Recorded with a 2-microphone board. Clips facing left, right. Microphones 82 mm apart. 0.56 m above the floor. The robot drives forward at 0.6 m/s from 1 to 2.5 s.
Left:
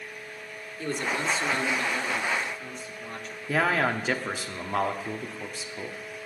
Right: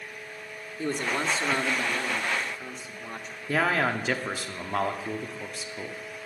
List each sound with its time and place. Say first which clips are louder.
0.8 s a man speaking: right 1 dB; 25° right (ahead or behind), 1.0 m; by 3.4 s 15° right (ahead or behind), 1.4 m
3.5 s a man speaking: even; centre (ahead or behind), 1.0 m